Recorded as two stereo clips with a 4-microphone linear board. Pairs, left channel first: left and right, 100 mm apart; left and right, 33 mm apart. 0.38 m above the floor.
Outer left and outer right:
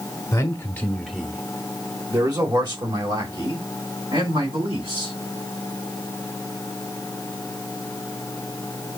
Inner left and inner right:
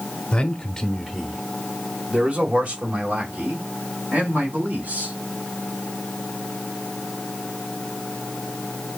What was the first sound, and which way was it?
A man speaking, 30° left (ahead or behind).